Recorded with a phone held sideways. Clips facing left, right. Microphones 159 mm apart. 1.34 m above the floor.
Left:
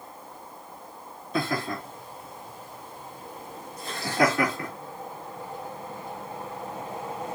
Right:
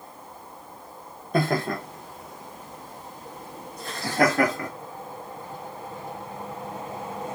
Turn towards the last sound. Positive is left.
turn(degrees=-45)  # may be behind; listen again after turning